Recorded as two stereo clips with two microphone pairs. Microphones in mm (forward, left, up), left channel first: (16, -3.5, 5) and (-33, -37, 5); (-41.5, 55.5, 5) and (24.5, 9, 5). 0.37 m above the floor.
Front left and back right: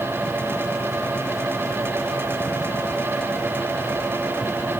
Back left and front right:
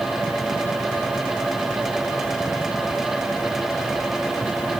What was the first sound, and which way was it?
Only background noise.